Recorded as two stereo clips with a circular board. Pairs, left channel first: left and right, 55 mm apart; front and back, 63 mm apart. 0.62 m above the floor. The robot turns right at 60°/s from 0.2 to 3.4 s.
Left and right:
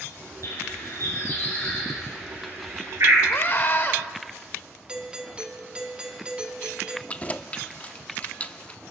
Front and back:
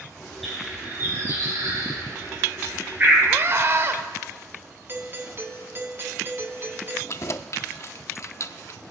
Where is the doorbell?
155° right, 1.3 m.